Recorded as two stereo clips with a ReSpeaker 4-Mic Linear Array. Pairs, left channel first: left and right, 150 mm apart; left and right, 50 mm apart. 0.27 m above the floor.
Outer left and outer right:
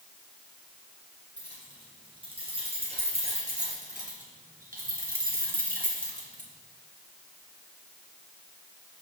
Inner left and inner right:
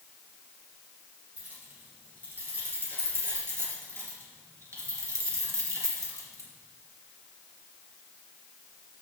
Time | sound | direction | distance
1.4 | keys jangling | 30° right (ahead or behind) | 4 m